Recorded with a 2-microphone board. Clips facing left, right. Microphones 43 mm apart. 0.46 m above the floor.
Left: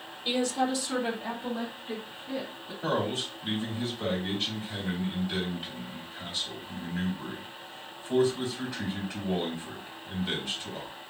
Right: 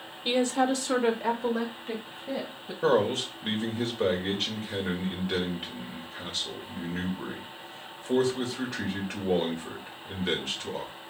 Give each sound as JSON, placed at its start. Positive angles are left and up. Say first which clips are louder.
{"t": 0.2, "sound": "a woman speaking", "louder": "right 3 dB", "side_deg": -20, "distance_m": 1.0}
{"t": 2.8, "sound": "a man speaking", "louder": "right 5 dB", "side_deg": -50, "distance_m": 1.7}